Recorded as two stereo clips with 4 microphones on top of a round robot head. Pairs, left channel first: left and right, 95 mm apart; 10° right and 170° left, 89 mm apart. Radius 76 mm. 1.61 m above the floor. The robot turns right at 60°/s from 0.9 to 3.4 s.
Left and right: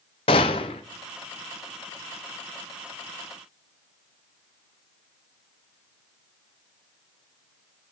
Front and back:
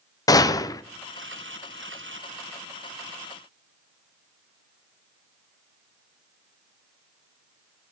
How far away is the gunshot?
About 0.8 m.